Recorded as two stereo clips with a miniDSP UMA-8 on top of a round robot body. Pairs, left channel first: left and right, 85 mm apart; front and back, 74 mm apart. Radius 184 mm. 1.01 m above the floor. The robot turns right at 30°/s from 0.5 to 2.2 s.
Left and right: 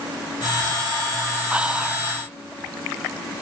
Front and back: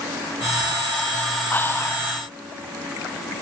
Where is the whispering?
30° right, 0.6 m; by 2.1 s 15° right, 0.6 m.